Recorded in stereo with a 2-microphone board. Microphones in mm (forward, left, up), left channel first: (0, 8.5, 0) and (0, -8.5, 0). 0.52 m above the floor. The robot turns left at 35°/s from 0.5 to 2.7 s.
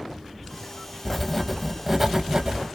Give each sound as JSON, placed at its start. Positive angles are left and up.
{"t": 1.1, "sound": "writing", "azimuth_deg": 10, "distance_m": 0.7}